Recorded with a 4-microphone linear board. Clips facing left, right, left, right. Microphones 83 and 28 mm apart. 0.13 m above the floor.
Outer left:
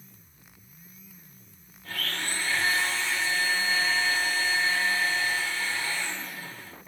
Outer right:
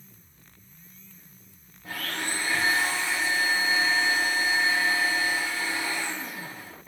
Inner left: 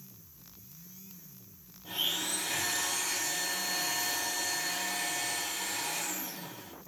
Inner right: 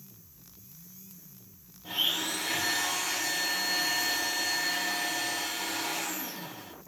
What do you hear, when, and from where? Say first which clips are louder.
1.8 s a blender: outer right 1 dB, inner right 3 dB; 20° right (ahead or behind), 4 m